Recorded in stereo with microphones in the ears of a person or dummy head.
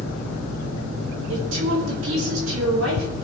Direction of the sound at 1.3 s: 65° right (ahead or behind).